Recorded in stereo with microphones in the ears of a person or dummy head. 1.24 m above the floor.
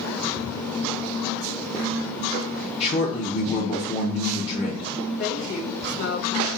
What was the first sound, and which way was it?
A man speaking, 35° left (ahead or behind).